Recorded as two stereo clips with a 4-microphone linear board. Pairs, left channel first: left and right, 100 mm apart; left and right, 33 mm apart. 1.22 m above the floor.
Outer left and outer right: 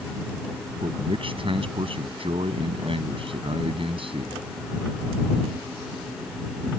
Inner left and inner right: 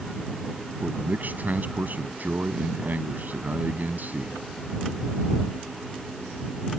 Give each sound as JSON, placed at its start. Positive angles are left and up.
{"t": 0.8, "sound": "a man speaking", "side_deg": -65}